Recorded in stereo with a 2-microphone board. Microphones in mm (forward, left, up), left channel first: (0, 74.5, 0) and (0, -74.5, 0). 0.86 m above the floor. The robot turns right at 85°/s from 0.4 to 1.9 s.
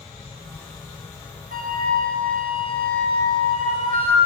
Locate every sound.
1.5 s a flute: 100° right, 4 m; by 4.2 s 70° right, 4 m